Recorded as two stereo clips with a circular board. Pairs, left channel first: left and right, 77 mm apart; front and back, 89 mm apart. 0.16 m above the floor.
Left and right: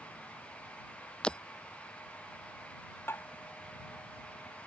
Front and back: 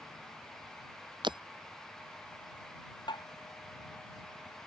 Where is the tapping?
30° left.